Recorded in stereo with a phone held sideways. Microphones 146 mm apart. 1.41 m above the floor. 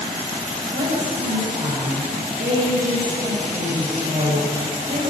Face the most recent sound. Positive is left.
turn(degrees=-70)  # may be behind; listen again after turning